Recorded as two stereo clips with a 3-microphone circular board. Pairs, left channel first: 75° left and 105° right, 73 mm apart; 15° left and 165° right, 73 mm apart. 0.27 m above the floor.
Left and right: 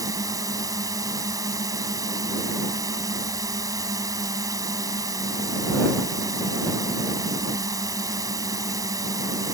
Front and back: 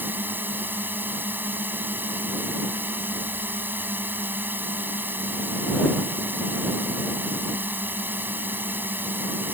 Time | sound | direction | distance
0.0 | a drone | 110° right | ?